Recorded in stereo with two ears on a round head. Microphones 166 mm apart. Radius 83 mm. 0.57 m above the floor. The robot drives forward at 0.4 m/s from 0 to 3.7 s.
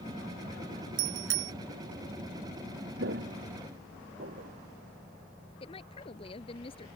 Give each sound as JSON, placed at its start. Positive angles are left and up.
{"t": 1.0, "sound": "a bicycle bell", "side_deg": -80}
{"t": 3.0, "sound": "footsteps", "side_deg": -60}
{"t": 5.6, "sound": "a woman speaking", "side_deg": 30}